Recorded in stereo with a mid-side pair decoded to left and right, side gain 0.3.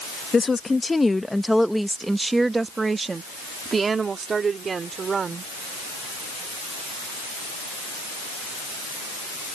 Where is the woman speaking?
45° left; by 5.5 s 65° right.